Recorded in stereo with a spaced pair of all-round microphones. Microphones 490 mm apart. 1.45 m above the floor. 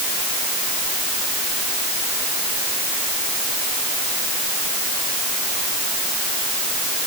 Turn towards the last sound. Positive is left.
No sound to turn to.